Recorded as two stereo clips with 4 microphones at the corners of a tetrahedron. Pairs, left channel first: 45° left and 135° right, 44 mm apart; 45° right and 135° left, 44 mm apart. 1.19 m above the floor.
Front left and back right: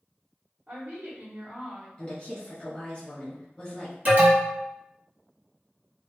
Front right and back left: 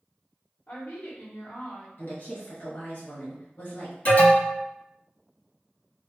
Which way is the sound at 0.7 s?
85° right.